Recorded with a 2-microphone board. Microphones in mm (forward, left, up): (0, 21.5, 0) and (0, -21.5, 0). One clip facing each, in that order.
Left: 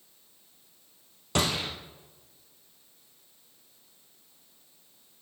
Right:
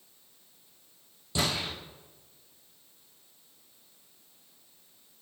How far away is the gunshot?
About 3 m.